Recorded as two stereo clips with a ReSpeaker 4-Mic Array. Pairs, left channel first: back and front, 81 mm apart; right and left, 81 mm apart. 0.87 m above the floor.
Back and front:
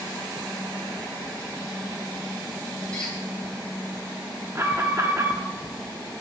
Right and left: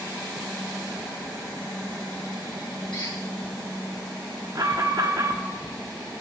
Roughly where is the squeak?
Right.